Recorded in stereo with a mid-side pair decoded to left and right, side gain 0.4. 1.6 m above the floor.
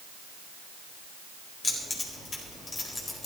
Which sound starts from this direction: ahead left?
Keys jangling, at 1.6 s.